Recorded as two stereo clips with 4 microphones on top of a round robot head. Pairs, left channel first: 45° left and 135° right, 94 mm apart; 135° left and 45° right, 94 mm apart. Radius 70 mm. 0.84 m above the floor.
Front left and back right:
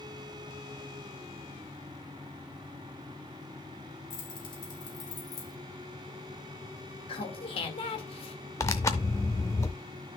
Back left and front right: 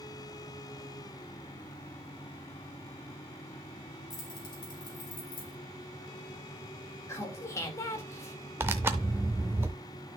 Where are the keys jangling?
85° left, 4 m; by 5.5 s 95° left, 3.5 m.